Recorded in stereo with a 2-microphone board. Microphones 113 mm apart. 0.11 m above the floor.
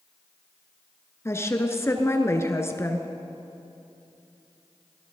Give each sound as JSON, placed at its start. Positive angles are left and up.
{"t": 1.2, "sound": "a woman speaking", "side_deg": 25, "distance_m": 1.2}